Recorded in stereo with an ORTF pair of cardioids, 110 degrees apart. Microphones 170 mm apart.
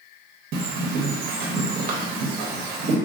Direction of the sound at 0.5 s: 65° right.